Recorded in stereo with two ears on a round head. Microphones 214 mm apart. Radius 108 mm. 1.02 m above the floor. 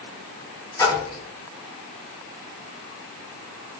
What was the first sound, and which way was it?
A splash, 15° left (ahead or behind).